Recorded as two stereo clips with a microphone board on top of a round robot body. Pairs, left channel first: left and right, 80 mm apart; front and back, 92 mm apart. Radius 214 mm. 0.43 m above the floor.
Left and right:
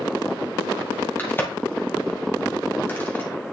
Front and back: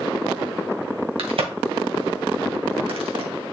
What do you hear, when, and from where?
1.2 s a crack: 155° left, 2.0 m